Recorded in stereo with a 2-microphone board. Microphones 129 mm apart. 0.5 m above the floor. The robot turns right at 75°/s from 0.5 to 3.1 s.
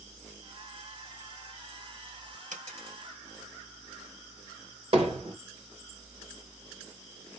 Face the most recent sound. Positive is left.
turn(degrees=-45)  # may be behind; listen again after turning